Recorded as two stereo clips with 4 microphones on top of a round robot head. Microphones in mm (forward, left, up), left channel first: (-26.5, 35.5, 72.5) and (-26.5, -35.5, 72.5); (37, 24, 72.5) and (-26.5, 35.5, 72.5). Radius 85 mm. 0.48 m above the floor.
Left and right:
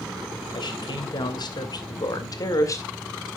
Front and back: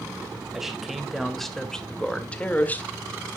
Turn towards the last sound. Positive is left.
turn(degrees=45)